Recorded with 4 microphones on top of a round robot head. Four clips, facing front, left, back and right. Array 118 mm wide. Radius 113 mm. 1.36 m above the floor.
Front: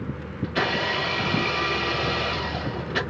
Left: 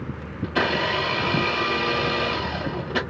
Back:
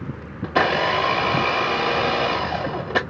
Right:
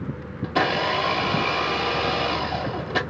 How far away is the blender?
About 0.7 m.